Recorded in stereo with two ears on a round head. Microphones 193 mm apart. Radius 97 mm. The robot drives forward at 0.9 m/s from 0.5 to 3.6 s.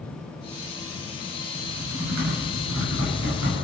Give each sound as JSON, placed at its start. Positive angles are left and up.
{"t": 1.6, "sound": "typing on a keyboard", "side_deg": -80, "distance_m": 7.0}